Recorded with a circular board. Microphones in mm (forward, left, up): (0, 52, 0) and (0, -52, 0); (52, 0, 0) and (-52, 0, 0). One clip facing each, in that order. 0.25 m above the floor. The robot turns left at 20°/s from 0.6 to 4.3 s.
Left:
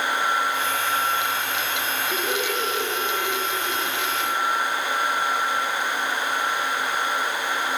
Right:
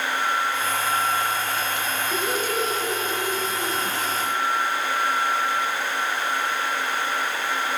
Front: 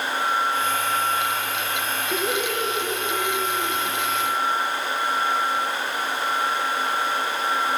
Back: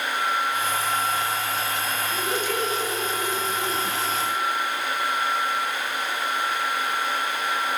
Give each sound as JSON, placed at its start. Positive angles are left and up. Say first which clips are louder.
{"t": 2.1, "sound": "laughter", "louder": "right 1 dB, front 3 dB", "azimuth_deg": 5, "distance_m": 5.5}